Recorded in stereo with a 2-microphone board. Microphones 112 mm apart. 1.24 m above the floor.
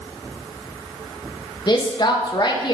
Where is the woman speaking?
40° left (ahead or behind), 0.9 m.